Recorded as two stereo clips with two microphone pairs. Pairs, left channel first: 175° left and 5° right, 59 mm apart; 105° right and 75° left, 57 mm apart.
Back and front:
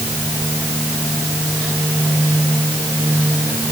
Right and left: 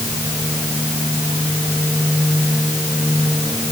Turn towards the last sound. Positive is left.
No sound to turn to.